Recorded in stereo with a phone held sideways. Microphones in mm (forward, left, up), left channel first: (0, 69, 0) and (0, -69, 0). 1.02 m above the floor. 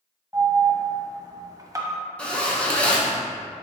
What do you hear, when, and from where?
0.3 s an alarm: 25° right (ahead or behind), 0.9 m
2.2 s a zipper: 10° left (ahead or behind), 0.9 m